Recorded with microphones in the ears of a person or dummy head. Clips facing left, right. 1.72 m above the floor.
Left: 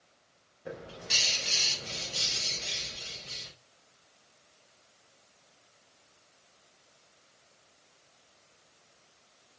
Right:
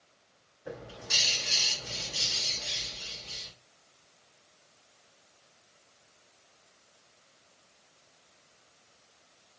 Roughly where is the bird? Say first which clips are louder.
Even; left.